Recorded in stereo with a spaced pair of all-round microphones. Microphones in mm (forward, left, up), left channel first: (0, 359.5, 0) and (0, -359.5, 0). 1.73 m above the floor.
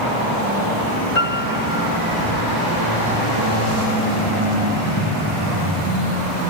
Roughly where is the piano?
Left.